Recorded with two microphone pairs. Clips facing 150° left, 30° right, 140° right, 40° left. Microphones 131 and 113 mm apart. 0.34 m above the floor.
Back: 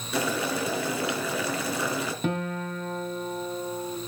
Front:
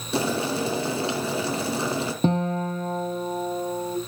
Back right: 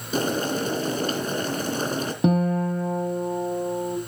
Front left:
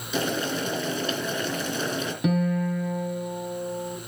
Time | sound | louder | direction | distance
0.1 | boiling | front 3 dB, back right 3 dB | 90° right | 3.5 m
2.2 | a guitar | front 8 dB, back right 3 dB | 85° right | 2 m